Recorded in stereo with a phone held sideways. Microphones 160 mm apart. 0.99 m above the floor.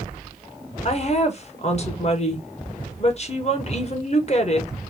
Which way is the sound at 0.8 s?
45° left (ahead or behind).